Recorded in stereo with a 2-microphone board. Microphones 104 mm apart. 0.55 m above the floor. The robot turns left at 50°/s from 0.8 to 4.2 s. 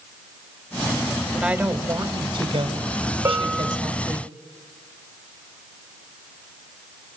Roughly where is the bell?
Right.